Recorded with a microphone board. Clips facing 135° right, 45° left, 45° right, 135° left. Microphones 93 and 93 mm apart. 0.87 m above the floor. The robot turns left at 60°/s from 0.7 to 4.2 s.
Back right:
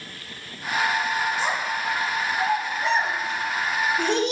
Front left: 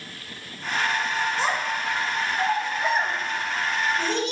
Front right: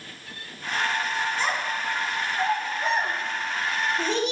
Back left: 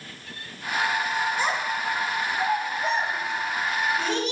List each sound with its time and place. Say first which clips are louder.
1.4 s a child speaking: even, back left 1 dB; 55° left, 1.4 m; by 4.3 s 115° right, 1.4 m